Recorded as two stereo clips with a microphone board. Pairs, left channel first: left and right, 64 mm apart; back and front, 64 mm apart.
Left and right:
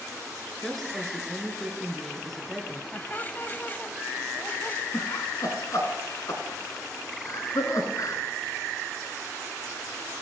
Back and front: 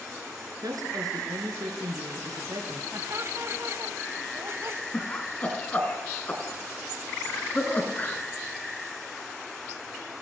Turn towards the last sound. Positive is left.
turn(degrees=115)